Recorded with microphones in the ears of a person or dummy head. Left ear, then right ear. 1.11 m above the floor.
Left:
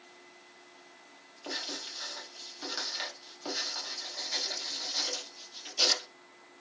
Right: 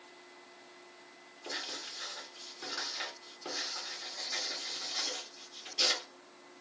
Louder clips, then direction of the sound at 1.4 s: Left 2 dB; 25° left (ahead or behind).